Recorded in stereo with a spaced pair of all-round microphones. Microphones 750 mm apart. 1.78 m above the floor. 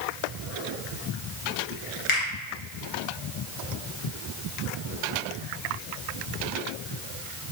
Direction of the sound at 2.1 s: 40° left (ahead or behind).